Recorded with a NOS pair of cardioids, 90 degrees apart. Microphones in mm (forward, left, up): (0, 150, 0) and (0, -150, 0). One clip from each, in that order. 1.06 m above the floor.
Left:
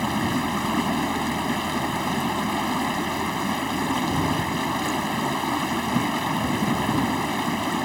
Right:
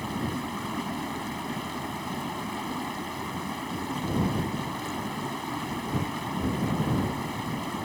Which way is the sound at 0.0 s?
65° left.